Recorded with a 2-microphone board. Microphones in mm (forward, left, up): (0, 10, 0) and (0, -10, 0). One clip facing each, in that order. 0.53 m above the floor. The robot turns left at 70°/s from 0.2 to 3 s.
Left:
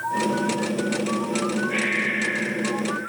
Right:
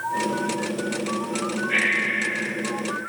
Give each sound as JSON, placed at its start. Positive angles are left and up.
{"t": 1.7, "sound": "breathing", "azimuth_deg": -150, "distance_m": 2.5}